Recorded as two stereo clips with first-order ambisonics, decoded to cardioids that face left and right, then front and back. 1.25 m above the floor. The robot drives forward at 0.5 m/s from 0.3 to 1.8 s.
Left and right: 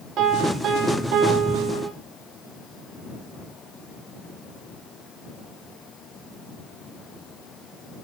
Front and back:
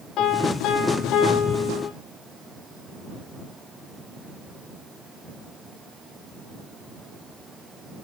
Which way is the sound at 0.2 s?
45° right.